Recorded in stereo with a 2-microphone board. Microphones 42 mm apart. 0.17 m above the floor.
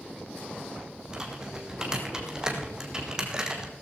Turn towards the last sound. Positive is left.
turn(degrees=-15)  # may be behind; listen again after turning